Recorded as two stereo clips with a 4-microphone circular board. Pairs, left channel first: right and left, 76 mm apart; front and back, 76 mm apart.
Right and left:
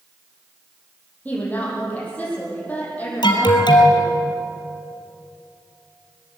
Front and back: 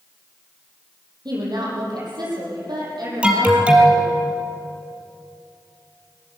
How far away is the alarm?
About 3.5 m.